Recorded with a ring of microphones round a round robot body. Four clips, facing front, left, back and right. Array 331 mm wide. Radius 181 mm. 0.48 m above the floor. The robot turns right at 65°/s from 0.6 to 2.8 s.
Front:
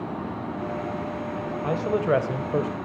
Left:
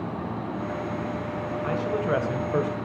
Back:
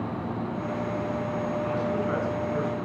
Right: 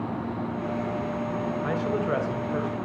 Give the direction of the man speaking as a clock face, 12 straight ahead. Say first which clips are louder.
Left 2 dB, front 3 dB; 1 o'clock.